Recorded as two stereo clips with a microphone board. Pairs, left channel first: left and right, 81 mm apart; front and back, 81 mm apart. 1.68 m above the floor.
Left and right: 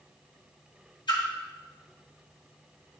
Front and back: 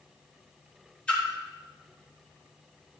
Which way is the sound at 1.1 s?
75° left.